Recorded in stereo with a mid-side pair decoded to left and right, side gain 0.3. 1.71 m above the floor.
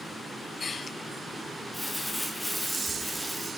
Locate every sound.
1.7 s crumpling: 5° left, 1.8 m